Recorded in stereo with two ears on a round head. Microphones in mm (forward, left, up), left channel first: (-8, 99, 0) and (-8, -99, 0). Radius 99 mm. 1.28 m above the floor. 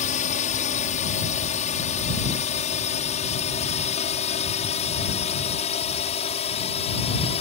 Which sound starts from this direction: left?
A drone, at 0.0 s.